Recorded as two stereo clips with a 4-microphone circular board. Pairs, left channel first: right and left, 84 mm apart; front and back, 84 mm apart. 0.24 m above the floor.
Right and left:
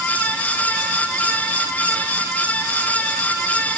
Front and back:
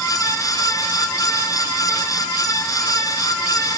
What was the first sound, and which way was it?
Only background noise.